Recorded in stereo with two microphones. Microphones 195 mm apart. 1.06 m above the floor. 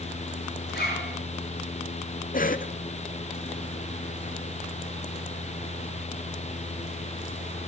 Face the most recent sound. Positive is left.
turn(degrees=45)  # may be behind; listen again after turning